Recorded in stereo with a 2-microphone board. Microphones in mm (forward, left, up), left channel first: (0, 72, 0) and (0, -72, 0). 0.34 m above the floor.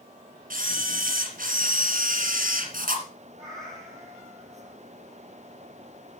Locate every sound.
0.5 s a camera shutter: 70° right (ahead or behind), 3 m
3.4 s a cat meowing: 20° right (ahead or behind), 6.5 m